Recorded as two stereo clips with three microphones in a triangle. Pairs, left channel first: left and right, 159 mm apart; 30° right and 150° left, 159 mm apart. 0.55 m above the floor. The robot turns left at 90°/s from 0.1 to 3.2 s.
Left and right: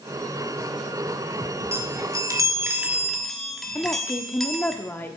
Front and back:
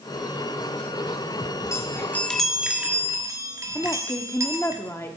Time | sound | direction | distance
1.7 | a chime | 50° right | 1.2 m
3.8 | a woman speaking | 25° left | 0.9 m